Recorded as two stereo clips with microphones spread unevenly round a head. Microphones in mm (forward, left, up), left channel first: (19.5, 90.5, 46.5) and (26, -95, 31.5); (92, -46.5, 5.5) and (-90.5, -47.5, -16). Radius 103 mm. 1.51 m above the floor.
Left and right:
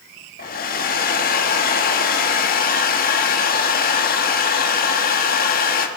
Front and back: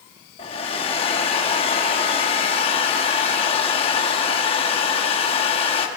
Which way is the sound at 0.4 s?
55° left.